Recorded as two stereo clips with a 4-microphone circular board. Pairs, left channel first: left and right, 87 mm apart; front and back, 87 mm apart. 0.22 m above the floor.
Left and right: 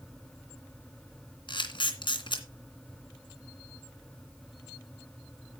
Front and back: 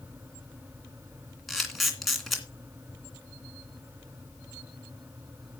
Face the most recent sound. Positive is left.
turn(degrees=90)